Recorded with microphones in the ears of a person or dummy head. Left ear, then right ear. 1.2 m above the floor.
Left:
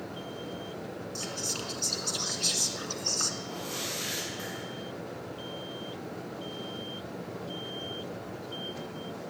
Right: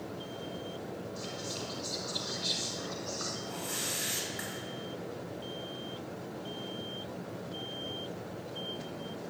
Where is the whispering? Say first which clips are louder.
Left 7 dB; 70° left (ahead or behind), 1.9 m.